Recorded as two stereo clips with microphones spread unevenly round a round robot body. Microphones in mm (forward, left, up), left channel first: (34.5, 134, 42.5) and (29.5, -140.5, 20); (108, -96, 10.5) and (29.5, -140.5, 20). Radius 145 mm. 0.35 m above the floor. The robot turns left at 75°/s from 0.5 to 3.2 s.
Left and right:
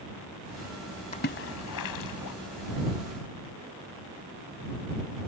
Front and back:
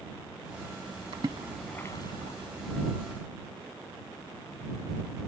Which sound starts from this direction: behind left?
A splash, at 1.1 s.